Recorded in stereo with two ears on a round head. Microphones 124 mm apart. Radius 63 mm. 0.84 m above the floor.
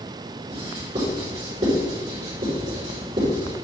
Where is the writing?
40° right (ahead or behind), 3.5 m.